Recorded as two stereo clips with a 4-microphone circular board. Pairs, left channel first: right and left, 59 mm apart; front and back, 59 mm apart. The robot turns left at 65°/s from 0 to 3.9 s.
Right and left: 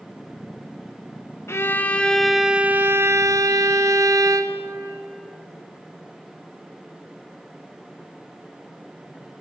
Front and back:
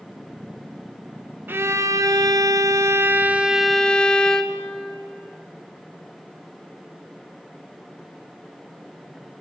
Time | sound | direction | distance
1.5 | a violin | 130° right | 1.0 m